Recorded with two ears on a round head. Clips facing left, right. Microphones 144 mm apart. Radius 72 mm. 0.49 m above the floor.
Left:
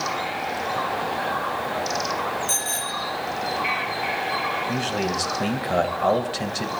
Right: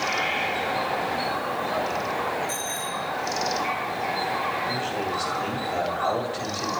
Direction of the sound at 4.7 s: 65° left (ahead or behind).